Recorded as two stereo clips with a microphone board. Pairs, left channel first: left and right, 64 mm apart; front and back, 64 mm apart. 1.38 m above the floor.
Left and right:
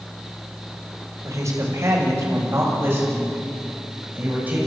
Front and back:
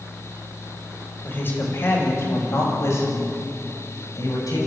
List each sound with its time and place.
1.2 s a woman speaking: 55° right, 6 m; by 4.6 s 25° right, 8.5 m